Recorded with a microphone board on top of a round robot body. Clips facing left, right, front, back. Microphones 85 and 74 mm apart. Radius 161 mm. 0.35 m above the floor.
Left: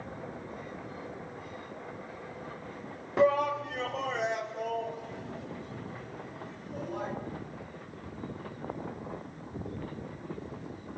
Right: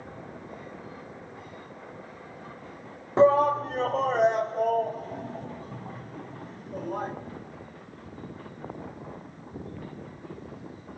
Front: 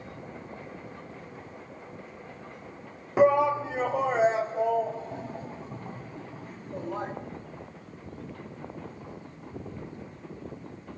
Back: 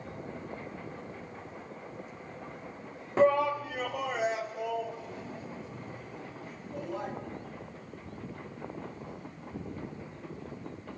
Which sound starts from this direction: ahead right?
A shout, at 3.2 s.